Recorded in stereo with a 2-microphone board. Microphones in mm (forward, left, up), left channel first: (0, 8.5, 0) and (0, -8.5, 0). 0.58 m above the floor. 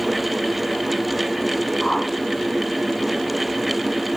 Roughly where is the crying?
I don't hear crying.